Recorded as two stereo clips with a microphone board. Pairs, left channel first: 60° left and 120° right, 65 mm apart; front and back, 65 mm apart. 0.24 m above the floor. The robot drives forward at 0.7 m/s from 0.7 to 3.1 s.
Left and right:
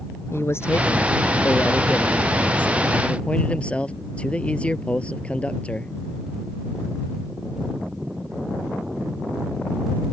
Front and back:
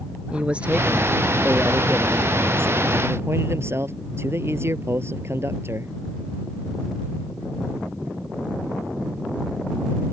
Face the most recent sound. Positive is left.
turn(degrees=135)